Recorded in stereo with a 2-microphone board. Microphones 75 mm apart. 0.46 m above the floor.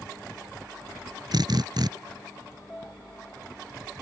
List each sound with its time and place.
1.3 s a drill: 65° right (ahead or behind)
2.7 s a piano: 20° left (ahead or behind)